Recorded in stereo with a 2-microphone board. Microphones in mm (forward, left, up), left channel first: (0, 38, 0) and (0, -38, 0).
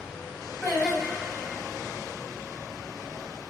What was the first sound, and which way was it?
Singing, centre (ahead or behind).